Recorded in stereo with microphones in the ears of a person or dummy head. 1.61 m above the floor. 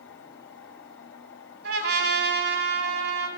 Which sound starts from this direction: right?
A trumpet, at 1.6 s.